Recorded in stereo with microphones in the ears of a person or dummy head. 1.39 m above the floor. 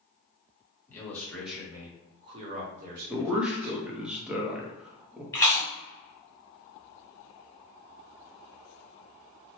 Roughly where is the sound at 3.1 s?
Centre.